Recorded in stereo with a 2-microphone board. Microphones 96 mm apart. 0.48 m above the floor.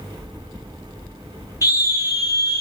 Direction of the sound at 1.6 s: 35° left (ahead or behind).